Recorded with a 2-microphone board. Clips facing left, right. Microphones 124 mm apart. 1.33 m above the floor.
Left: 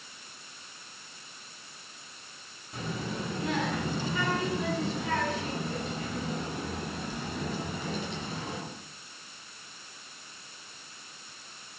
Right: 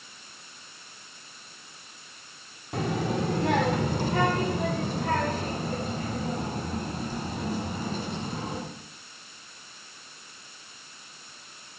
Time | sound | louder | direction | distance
2.7 | a child speaking | right 8 dB | 75° right (ahead or behind) | 2 m